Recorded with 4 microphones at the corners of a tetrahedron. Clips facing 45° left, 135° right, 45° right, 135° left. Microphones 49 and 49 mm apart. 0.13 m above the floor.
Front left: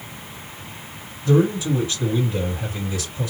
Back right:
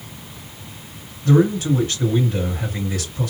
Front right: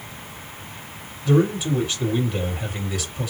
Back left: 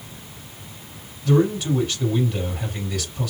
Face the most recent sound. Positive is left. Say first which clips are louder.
# back right 2 dB, even
turn(degrees=-120)